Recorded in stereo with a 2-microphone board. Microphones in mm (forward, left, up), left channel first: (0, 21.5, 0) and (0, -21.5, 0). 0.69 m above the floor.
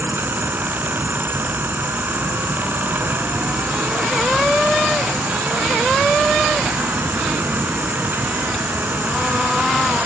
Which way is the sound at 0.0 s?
55° right (ahead or behind).